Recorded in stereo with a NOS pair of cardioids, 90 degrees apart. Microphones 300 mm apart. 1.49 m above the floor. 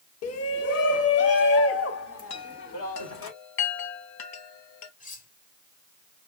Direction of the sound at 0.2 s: 55° left.